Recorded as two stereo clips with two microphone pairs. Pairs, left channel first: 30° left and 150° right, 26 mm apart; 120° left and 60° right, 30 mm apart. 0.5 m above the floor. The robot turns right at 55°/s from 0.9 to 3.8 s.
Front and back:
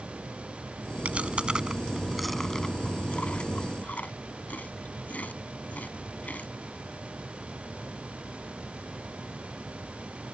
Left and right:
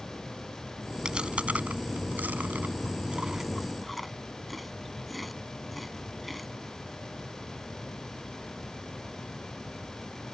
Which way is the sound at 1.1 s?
125° right.